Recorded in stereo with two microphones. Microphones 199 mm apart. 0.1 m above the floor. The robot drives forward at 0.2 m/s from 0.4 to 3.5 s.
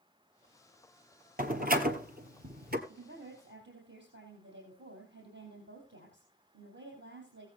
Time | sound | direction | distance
1.4 | a door slam | 50° right (ahead or behind) | 1.5 m
2.9 | a woman speaking | 65° right (ahead or behind) | 4 m